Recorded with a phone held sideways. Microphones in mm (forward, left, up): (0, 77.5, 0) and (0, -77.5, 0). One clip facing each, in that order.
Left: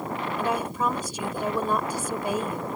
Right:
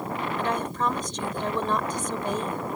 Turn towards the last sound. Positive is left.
turn(degrees=10)  # may be behind; listen again after turning